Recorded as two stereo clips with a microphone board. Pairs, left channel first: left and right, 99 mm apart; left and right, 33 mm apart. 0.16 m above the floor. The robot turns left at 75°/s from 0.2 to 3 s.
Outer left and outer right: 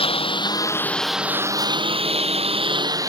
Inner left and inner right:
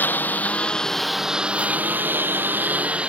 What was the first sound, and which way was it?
A lawn mower, 65° left.